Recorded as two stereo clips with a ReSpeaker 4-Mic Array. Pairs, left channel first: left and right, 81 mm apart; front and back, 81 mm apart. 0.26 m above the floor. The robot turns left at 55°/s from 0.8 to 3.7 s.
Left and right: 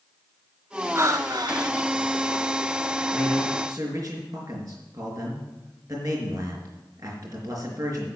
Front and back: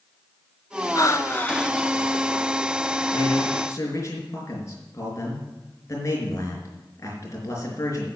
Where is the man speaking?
20° right, 4 m; by 8.1 s 50° right, 4 m.